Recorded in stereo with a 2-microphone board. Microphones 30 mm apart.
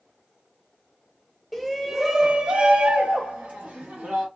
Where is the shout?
5° left (ahead or behind), 0.8 m; by 4.3 s 50° right (ahead or behind), 1.0 m.